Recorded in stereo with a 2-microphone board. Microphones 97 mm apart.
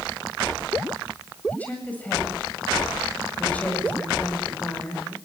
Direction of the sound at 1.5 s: 15° left (ahead or behind).